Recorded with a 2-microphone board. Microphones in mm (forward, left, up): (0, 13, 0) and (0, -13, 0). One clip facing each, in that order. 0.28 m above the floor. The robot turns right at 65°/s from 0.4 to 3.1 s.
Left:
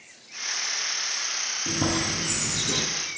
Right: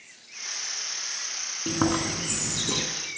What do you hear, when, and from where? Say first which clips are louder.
1.7 s chewing: right 2 dB; 120° right, 1.9 m; by 2.8 s 45° right, 1.9 m